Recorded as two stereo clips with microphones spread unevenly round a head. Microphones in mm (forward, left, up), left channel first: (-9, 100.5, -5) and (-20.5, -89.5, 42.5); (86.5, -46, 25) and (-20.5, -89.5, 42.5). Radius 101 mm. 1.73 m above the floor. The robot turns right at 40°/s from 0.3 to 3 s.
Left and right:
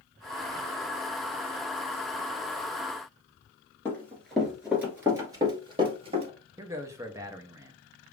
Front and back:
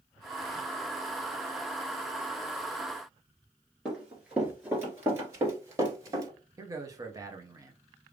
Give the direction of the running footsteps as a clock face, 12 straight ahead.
6 o'clock.